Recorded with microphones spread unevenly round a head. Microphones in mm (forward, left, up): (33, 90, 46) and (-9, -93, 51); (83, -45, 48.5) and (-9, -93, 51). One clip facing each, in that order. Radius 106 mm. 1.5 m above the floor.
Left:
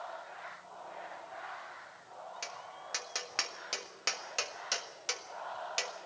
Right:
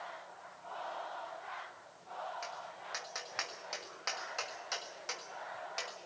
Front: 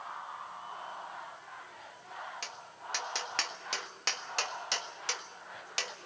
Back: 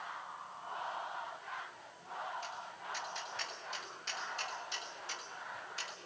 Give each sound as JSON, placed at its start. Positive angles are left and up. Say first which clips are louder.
{"t": 2.4, "sound": "tapping", "louder": "right 1 dB, back 1 dB", "azimuth_deg": 25, "distance_m": 1.7}